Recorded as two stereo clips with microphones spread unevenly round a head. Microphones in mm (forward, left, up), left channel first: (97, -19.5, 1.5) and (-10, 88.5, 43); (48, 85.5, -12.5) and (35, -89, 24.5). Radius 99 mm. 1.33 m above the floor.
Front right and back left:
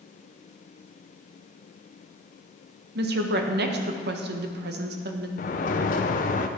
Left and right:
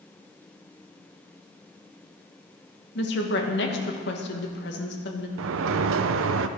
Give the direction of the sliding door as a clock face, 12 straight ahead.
3 o'clock.